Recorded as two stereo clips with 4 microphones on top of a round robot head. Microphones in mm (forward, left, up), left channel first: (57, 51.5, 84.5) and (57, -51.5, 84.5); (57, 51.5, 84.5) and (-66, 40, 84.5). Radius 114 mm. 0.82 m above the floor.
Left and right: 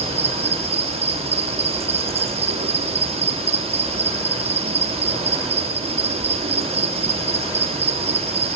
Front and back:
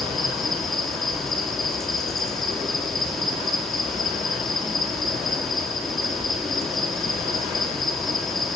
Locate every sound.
0.0 s an insect: 85° right, 2.0 m